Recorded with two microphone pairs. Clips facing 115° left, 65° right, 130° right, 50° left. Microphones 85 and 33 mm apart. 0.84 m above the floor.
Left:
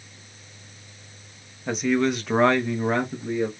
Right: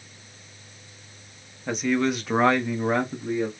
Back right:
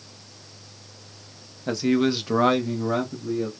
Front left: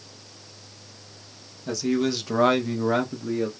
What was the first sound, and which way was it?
A man speaking, 155° right.